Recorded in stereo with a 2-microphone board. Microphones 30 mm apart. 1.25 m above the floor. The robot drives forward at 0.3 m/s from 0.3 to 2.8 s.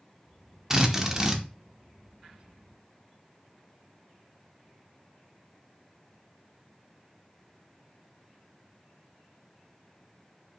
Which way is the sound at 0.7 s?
15° right (ahead or behind).